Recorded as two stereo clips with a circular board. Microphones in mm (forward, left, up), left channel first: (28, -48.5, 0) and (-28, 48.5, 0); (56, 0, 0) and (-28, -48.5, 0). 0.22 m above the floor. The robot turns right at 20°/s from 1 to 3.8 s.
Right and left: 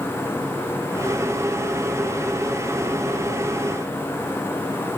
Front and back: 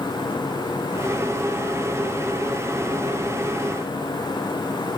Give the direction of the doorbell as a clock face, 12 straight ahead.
I don't hear a doorbell.